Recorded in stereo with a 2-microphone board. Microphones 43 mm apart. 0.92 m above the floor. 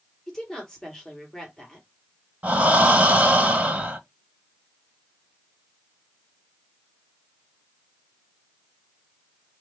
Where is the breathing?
35° right (ahead or behind), 0.8 m.